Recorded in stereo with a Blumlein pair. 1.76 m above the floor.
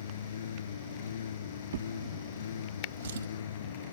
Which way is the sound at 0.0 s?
65° left.